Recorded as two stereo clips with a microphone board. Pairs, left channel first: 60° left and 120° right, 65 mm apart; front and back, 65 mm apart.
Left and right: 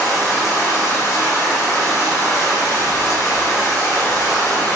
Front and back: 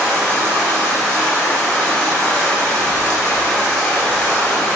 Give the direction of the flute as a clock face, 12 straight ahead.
No flute in this recording.